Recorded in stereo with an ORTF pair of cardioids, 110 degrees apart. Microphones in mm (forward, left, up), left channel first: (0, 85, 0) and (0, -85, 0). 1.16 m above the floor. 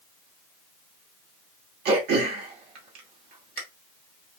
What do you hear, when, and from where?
1.9 s throat clearing: 70° right, 1.9 m